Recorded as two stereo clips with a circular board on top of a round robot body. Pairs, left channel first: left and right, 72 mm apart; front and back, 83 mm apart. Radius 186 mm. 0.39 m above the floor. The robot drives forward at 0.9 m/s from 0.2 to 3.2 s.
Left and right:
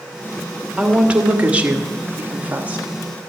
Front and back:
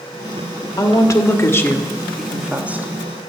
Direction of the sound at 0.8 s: 20° right.